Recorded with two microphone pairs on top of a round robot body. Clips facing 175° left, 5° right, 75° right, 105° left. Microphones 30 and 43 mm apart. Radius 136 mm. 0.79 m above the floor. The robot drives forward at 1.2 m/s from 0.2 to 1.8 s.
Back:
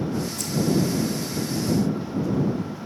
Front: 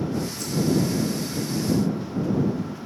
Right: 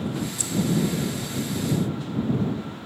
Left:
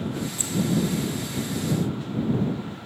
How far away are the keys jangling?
About 1.0 m.